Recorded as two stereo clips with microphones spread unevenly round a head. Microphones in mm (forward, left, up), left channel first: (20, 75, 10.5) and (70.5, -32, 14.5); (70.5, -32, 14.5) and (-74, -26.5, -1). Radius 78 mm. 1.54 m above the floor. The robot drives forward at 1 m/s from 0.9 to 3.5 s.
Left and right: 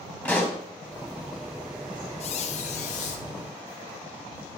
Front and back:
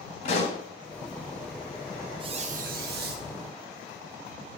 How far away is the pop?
About 3 m.